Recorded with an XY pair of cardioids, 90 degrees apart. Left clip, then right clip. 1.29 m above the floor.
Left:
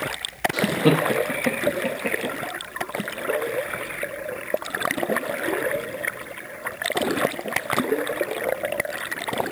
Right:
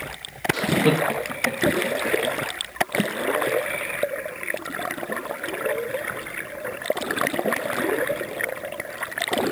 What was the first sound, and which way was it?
Laughter, 15° left.